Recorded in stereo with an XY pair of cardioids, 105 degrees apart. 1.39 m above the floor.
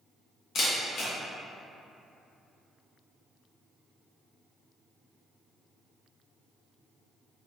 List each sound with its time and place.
0.6 s a camera shutter: 65° left, 1.2 m